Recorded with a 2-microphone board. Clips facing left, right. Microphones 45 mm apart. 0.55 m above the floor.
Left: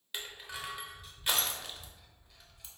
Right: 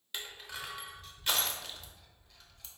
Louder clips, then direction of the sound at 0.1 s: Even; 10° left (ahead or behind).